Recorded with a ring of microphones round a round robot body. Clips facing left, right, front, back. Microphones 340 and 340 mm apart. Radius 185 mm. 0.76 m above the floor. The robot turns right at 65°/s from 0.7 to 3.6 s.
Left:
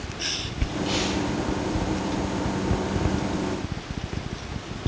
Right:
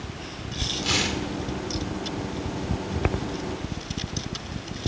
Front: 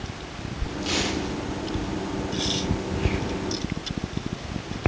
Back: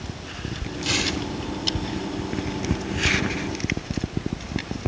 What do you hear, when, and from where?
0.8 s tearing paper: 130° right, 1.7 m; by 1.2 s 105° right, 1.7 m